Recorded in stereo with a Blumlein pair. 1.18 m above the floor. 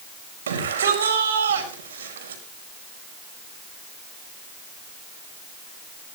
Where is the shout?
65° right, 5.5 m.